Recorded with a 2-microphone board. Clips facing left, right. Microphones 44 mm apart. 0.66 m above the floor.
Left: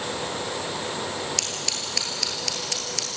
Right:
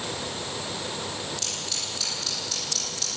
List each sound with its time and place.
1.4 s scissors: 80° left, 5.5 m